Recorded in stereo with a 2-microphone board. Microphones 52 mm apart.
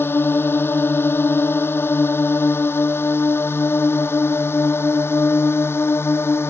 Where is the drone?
45° left (ahead or behind); by 6.5 s 50° left (ahead or behind).